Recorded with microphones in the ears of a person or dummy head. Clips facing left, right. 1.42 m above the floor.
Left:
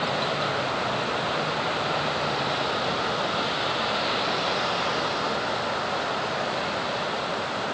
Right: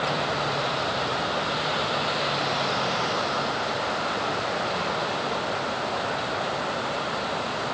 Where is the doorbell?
No doorbell in this recording.